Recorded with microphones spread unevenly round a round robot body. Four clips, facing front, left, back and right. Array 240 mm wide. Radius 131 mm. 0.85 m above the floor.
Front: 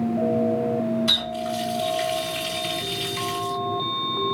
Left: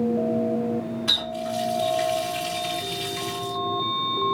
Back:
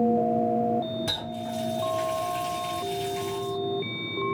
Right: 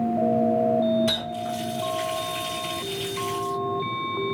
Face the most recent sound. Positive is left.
turn(degrees=-155)